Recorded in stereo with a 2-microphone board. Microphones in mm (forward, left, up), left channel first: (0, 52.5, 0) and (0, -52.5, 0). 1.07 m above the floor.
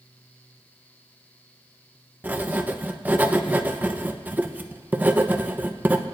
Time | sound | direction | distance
2.2 | writing | 15° right (ahead or behind) | 0.8 m